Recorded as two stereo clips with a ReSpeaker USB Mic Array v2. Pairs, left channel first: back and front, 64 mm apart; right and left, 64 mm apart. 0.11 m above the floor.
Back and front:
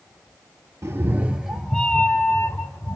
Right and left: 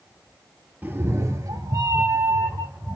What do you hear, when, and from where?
0.8 s a cat meowing: 35° left, 0.5 m; by 3.0 s 135° left, 1.1 m